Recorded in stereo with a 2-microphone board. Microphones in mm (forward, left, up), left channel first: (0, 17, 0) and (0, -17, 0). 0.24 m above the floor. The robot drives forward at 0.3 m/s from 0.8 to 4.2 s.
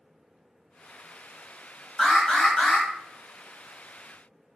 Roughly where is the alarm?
Left.